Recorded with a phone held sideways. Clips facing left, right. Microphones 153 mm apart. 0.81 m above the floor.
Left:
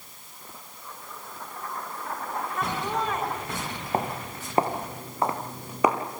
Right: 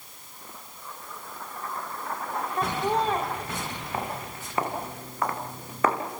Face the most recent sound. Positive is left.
turn(degrees=10)  # may be behind; listen again after turning